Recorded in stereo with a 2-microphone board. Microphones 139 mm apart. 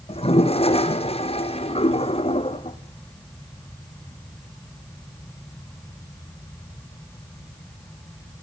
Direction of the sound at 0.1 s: 45° left (ahead or behind).